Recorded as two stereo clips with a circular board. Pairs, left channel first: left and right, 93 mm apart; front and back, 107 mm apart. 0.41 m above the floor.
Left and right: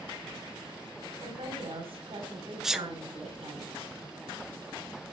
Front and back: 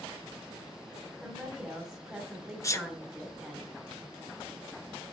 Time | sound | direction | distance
1.2 | a woman speaking | 95° right | 2.5 m
2.6 | a sneeze | 10° right | 0.9 m